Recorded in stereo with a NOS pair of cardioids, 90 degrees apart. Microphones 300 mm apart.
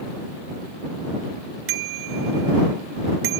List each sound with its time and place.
1.7 s a bicycle bell: 45° right